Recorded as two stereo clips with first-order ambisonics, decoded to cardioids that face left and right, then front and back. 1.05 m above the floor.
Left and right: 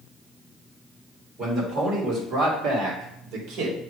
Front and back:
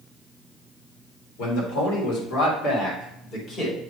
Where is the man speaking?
25° right, 3 m; by 3.8 s 65° right, 2 m.